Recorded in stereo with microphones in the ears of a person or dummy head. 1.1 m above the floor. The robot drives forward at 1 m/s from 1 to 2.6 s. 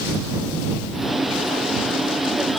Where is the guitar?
No guitar in this recording.